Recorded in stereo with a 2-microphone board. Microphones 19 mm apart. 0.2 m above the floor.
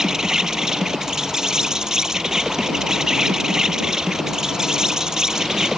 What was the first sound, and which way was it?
An insect, 35° right (ahead or behind).